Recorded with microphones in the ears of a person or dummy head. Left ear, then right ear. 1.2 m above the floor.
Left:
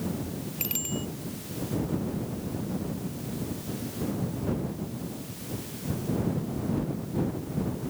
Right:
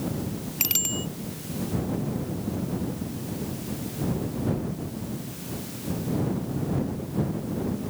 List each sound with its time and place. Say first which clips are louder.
0.6 s a bicycle bell: right 6 dB; 25° right (ahead or behind)